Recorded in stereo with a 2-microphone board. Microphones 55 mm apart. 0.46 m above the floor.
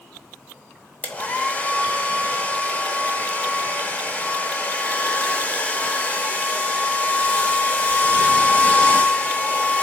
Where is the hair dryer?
30° left (ahead or behind), 0.8 m.